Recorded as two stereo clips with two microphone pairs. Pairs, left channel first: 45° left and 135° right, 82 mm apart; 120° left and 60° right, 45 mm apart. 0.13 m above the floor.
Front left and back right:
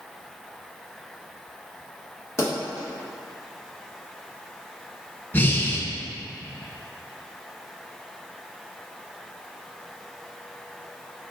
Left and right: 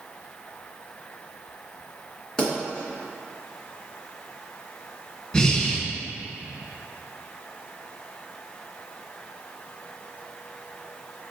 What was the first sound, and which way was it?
A pop, 50° left.